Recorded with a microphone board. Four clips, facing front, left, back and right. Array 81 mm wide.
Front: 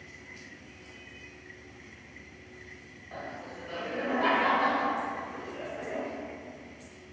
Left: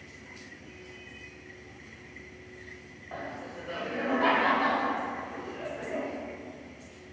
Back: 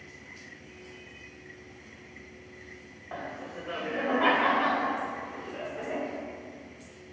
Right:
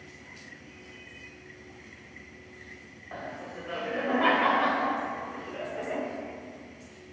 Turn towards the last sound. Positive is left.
turn(degrees=-110)